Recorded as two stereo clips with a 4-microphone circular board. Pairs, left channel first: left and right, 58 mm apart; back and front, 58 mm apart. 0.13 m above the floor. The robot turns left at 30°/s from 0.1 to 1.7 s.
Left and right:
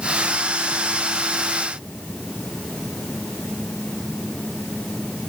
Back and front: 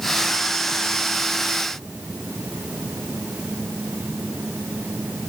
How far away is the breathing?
No breathing in this recording.